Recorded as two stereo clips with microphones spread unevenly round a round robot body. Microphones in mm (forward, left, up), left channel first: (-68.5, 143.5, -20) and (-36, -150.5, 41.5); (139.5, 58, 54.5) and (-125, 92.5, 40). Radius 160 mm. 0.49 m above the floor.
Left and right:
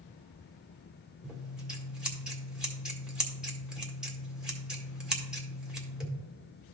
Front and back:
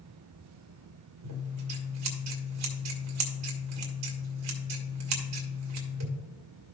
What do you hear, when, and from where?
1.2 s scissors: 175° right, 1.7 m